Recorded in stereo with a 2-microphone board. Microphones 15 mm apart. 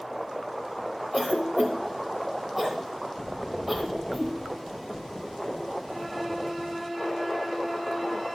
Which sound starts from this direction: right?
A cough, at 1.1 s.